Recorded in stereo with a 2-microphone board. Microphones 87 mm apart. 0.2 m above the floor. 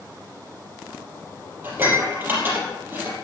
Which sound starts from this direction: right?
Dishes clattering, at 1.6 s.